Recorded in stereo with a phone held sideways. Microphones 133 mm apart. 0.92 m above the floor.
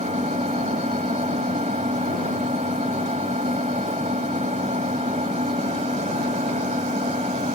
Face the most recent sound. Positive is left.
turn(degrees=-65)  # may be behind; listen again after turning